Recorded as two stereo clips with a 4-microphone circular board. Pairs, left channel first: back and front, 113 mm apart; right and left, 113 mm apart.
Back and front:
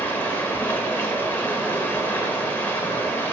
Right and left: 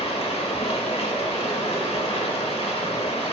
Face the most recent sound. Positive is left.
turn(degrees=-110)